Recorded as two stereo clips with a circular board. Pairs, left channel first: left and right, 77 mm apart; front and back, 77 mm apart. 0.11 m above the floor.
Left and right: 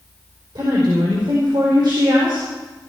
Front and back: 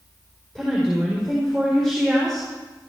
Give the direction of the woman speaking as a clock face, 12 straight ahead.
3 o'clock.